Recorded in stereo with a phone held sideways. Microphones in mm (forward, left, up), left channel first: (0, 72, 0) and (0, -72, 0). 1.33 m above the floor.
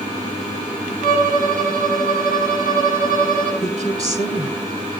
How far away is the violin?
About 8 m.